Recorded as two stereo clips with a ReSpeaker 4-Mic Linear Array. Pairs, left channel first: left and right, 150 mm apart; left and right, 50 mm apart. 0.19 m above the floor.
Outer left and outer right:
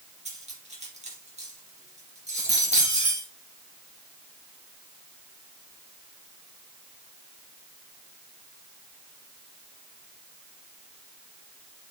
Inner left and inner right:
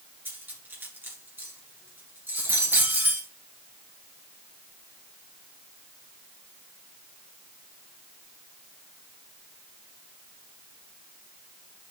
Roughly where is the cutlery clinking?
Right.